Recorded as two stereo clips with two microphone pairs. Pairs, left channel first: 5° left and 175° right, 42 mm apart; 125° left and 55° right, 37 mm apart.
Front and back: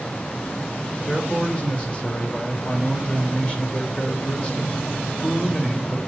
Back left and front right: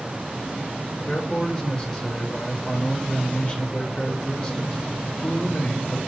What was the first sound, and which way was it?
A man speaking, 60° left.